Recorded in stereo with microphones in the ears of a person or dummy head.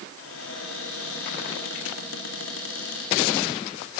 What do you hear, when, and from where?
0.2 s a cupboard door: 75° left (ahead or behind), 3.5 m